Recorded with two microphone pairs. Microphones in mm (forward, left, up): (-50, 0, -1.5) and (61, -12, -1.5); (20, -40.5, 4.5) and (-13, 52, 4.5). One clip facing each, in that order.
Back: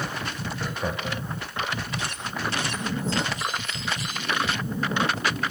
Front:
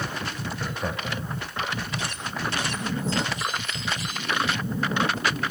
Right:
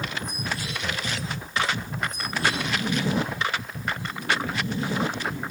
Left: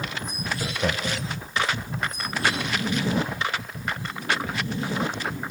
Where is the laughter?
85° left, 2 m.